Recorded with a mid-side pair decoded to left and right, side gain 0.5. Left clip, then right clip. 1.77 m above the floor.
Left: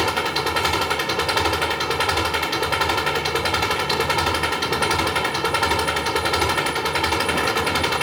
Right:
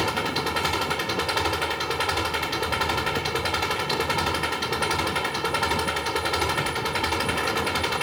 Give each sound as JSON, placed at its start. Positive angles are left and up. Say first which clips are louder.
{"t": 0.0, "sound": "an engine running", "louder": "left 4 dB", "azimuth_deg": 30}